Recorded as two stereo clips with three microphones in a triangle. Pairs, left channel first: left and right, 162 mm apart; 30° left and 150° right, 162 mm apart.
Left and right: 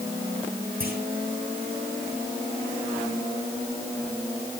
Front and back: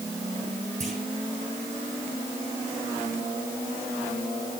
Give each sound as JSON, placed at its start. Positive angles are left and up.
{"t": 0.8, "sound": "a clunk", "azimuth_deg": -110, "distance_m": 8.0}